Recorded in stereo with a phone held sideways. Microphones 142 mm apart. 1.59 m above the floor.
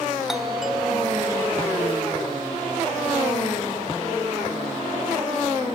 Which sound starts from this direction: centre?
A doorbell, at 0.3 s.